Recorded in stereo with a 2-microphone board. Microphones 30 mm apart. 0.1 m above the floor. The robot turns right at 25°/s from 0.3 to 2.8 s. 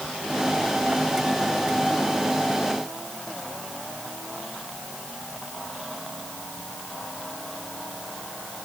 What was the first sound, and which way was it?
Only background noise.